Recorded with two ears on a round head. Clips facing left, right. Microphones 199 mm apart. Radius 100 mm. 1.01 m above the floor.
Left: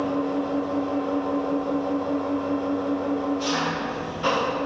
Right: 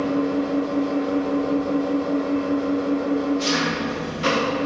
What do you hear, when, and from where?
0.0 s an engine running: 30° right (ahead or behind), 1.5 m